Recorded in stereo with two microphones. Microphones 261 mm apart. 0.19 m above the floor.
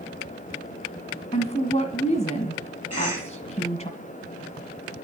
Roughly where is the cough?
Left.